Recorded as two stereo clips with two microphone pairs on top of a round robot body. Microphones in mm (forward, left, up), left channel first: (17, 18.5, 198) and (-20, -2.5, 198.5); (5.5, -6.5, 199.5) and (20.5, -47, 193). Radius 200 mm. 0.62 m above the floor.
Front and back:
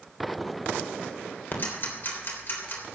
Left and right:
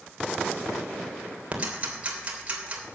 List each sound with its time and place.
1.5 s ticking: 5° right, 3.5 m